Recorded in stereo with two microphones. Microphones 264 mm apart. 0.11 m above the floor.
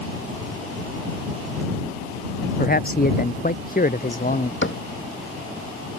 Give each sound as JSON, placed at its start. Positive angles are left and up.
{"t": 2.6, "sound": "a man speaking", "side_deg": 35}
{"t": 4.6, "sound": "a cupboard door", "side_deg": 50}